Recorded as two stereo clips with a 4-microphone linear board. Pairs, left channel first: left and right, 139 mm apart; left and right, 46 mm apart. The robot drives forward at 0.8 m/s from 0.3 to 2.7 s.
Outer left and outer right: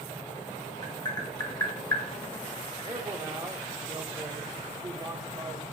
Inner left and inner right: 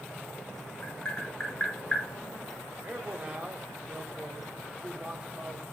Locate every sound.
0.8 s tapping: 30° left (ahead or behind), 4 m; by 2.0 s 25° left (ahead or behind), 5 m
2.8 s a man speaking: 25° right (ahead or behind), 1.0 m